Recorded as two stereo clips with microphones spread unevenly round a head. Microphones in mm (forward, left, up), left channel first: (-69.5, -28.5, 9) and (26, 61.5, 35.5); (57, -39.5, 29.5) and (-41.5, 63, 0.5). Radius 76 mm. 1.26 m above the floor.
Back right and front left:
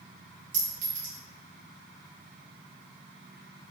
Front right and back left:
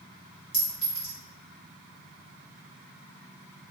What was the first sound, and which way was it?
A clink, 40° left.